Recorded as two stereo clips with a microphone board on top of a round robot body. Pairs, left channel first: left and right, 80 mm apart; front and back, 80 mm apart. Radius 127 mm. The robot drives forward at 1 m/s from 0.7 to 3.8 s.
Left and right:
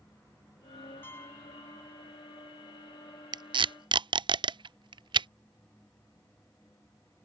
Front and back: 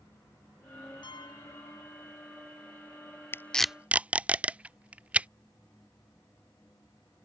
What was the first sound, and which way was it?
A piano, 25° left.